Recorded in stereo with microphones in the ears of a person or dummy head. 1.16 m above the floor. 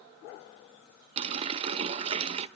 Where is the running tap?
30° right (ahead or behind), 0.5 m.